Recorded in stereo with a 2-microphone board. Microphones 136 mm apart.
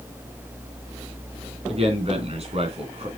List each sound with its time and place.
1.7 s a man speaking: 50° right (ahead or behind), 3 m